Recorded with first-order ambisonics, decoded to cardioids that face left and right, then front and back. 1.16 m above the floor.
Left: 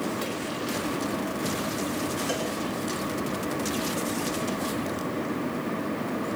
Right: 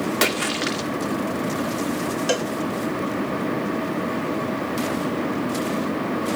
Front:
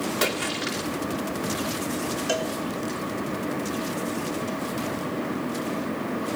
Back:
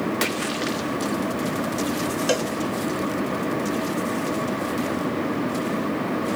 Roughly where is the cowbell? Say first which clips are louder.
Right 9 dB, back 3 dB; behind right.